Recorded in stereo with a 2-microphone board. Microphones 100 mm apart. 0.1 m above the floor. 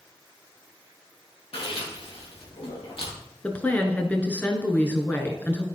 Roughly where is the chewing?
Left.